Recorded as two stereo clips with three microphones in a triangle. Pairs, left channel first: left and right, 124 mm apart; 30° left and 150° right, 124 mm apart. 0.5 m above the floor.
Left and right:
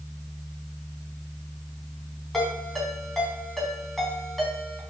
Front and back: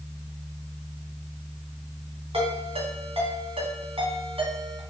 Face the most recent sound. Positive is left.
turn(degrees=175)